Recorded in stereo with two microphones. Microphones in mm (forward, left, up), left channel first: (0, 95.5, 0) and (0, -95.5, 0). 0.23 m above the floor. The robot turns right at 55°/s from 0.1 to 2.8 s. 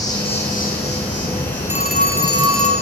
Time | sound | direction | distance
0.0 | an insect | 20° left | 6.5 m
1.7 | a phone ringing | 15° right | 2.5 m